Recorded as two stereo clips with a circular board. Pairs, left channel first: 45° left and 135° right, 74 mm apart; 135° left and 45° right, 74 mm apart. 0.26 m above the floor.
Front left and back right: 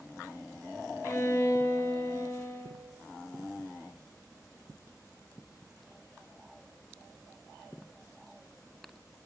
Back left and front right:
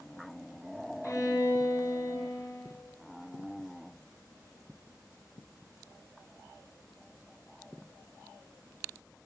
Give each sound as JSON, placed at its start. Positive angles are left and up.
{"t": 1.0, "sound": "a violin", "azimuth_deg": 95, "distance_m": 1.7}